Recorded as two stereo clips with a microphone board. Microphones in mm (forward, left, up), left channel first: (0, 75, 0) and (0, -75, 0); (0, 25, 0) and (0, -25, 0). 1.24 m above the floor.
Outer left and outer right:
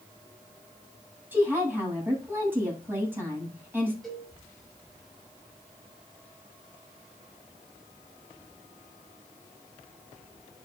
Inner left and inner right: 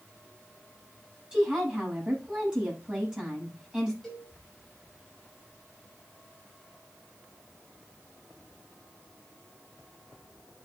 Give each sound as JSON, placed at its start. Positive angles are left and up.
{"t": 1.3, "sound": "a woman speaking", "side_deg": -15, "distance_m": 8.0}
{"t": 4.0, "sound": "a cowbell", "side_deg": 5, "distance_m": 5.5}